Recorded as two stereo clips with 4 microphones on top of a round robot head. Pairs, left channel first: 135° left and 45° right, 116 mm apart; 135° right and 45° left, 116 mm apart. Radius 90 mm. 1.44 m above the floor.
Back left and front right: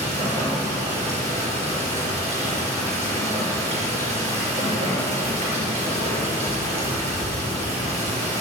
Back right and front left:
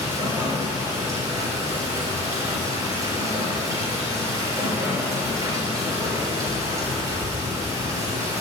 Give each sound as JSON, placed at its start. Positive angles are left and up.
{"t": 0.0, "sound": "running water", "azimuth_deg": -15, "distance_m": 5.5}